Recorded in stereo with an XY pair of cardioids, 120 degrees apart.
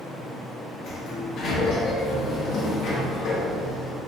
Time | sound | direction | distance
0.8 | a sliding door | 60° left | 1.4 m